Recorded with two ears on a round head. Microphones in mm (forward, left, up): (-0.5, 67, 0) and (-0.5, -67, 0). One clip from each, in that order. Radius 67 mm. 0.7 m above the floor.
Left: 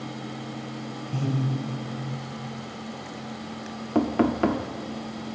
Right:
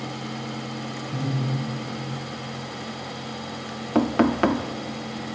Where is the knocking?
35° right (ahead or behind), 0.8 m.